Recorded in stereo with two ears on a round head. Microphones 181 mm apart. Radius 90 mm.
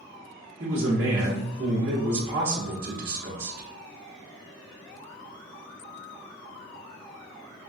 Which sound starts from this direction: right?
A man speaking, at 0.6 s.